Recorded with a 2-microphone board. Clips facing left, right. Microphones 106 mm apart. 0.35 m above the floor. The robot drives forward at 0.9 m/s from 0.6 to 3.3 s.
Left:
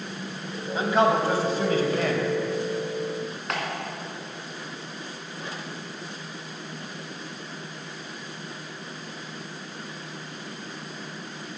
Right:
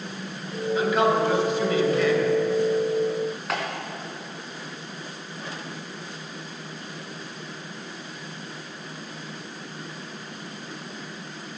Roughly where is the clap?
Centre.